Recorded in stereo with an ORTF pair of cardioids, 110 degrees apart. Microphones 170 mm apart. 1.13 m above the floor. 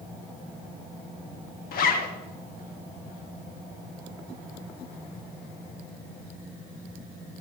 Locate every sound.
1.7 s a zipper: 60° left, 1.0 m